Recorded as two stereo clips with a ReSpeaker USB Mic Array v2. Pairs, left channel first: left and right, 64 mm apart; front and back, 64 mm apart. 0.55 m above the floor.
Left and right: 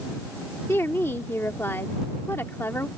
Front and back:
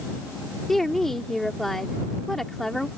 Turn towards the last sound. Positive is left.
turn(degrees=80)